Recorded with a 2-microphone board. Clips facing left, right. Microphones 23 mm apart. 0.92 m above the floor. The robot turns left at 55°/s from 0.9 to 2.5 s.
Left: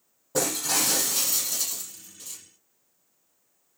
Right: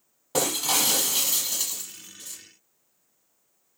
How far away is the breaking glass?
About 6.5 m.